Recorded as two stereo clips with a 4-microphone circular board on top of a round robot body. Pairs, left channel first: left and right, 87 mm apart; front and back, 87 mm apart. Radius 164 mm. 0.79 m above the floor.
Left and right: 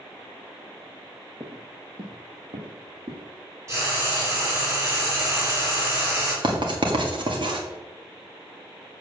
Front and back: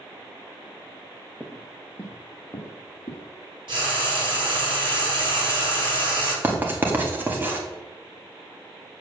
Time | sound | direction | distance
1.4 | footsteps | 110° right | 0.8 m
3.7 | frying | 145° right | 6 m
6.4 | writing | 110° right | 2 m